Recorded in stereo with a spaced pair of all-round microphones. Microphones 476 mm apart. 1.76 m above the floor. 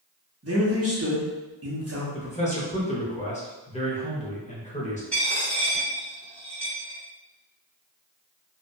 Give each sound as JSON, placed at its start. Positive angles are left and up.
{"t": 0.4, "sound": "a man speaking", "side_deg": -35, "distance_m": 0.8}
{"t": 2.1, "sound": "a man speaking", "side_deg": 15, "distance_m": 0.6}
{"t": 5.1, "sound": "a dropped coin", "side_deg": 0, "distance_m": 1.8}